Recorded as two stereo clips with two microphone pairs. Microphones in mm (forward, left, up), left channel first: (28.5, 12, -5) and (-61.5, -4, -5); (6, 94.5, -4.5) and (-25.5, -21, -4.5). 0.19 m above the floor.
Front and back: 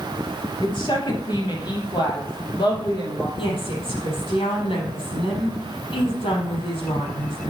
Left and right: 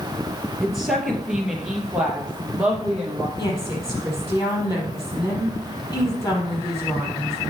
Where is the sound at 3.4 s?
15° left, 5 m.